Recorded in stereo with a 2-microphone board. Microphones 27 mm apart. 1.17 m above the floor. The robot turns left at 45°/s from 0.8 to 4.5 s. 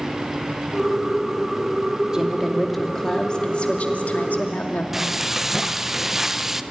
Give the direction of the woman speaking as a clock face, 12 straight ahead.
5 o'clock.